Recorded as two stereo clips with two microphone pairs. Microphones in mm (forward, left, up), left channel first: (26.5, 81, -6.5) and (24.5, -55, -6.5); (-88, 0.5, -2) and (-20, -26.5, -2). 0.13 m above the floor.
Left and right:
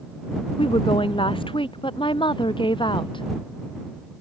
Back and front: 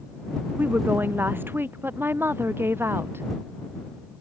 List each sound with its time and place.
0.6 s a woman speaking: 40° left; by 3.2 s 35° left